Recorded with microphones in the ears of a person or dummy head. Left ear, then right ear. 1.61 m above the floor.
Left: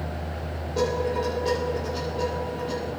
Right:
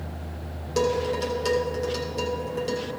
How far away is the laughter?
I don't hear laughter.